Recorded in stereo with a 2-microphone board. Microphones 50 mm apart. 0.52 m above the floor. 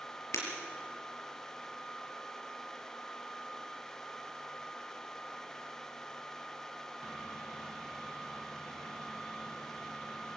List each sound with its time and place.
0.3 s breaking glass: 75° left (ahead or behind), 5 m